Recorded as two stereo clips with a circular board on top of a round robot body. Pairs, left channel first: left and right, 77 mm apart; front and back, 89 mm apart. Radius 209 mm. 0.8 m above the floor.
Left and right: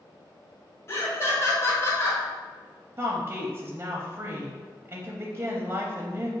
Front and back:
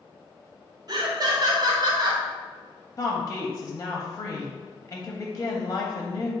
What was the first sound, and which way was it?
Laughter, 140° left.